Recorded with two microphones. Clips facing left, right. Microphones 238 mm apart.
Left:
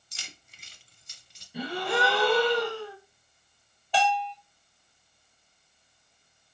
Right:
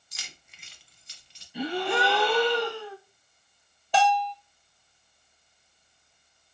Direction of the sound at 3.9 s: 50° right (ahead or behind).